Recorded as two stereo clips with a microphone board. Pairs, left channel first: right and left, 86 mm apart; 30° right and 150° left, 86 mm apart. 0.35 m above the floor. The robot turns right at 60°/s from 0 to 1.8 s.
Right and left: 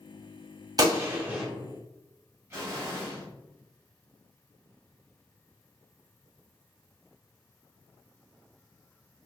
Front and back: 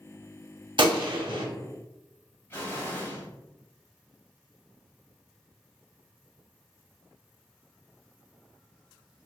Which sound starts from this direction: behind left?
A gunshot, at 0.8 s.